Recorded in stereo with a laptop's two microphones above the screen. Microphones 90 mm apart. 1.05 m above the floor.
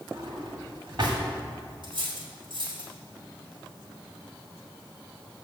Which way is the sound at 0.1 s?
55° right (ahead or behind).